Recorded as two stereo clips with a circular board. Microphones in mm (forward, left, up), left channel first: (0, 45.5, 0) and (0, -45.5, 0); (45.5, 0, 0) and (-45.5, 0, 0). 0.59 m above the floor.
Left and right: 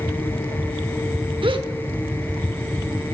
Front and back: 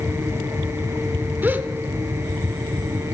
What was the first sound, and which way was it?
A gasp, 110° right.